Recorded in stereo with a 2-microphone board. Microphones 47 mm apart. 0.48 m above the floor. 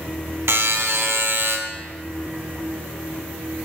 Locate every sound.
0.5 s a buzzer: 65° right (ahead or behind), 0.7 m